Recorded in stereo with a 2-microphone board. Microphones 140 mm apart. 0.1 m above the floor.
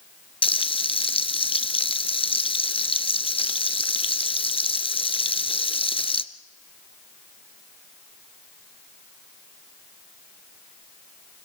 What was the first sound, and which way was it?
Frying, 40° left (ahead or behind).